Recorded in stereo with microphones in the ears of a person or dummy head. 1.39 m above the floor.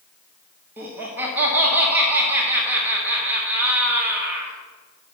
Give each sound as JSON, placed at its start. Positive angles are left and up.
{"t": 0.8, "sound": "laughter", "side_deg": -10, "distance_m": 1.5}